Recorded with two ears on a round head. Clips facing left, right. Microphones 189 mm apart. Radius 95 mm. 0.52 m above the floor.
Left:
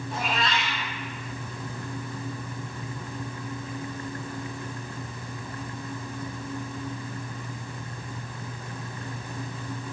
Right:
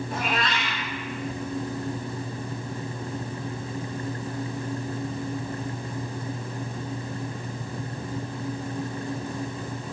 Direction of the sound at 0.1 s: 50° right (ahead or behind).